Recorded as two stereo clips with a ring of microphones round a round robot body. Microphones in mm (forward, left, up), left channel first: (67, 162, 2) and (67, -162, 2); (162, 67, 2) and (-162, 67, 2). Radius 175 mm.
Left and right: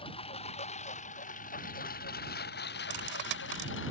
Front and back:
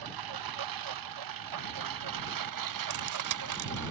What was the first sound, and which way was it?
A lawn mower, 165° left.